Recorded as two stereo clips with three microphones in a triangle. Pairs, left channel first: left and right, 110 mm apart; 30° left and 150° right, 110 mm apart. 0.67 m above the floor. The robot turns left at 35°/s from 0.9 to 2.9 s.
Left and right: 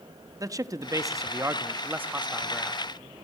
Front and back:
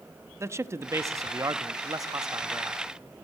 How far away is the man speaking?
About 0.5 m.